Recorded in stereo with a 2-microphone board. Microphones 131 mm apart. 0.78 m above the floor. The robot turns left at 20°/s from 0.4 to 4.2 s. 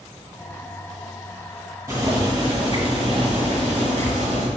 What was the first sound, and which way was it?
Boiling, 20° right.